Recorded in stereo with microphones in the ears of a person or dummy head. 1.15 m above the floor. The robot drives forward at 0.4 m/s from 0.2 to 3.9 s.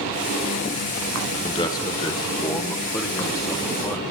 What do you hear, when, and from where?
1.4 s a man speaking: 20° left (ahead or behind), 0.7 m; by 4.0 s 10° left (ahead or behind), 1.3 m